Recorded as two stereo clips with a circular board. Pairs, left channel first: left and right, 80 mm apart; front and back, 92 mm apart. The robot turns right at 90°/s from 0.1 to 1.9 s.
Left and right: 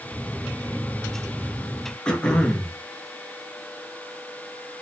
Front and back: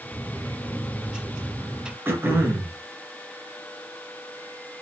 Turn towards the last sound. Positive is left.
turn(degrees=155)